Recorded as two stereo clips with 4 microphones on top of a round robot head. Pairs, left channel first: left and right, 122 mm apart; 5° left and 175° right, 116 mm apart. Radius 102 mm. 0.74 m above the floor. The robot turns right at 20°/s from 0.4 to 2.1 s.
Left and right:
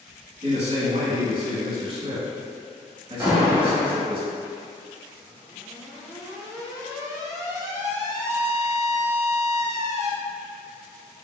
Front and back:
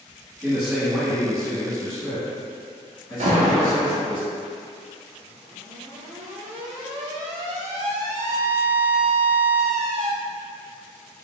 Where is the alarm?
165° right, 0.5 m.